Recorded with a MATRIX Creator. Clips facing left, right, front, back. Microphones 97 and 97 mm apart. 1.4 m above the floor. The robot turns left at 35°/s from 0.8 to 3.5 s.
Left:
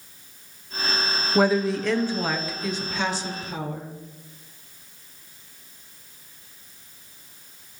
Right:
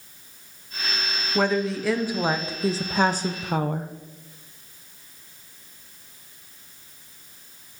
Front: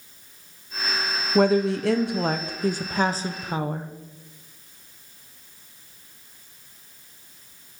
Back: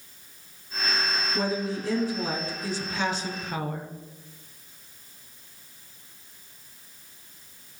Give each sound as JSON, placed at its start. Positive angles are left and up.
{"t": 1.4, "sound": "a woman speaking", "azimuth_deg": 15, "distance_m": 0.6}